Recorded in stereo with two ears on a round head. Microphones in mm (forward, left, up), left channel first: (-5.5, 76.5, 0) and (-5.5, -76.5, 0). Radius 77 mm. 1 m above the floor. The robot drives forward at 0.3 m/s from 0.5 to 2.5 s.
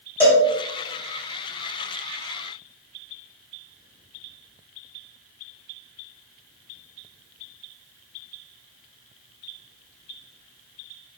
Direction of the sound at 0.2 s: 15° left (ahead or behind).